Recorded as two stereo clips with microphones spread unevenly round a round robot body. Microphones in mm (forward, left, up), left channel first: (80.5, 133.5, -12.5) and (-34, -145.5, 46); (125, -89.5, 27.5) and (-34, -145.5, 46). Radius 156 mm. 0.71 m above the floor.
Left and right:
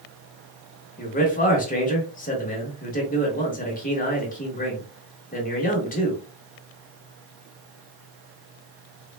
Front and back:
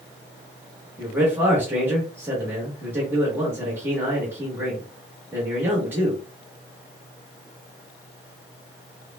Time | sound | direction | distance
1.0 | a man speaking | 115° left | 1.0 m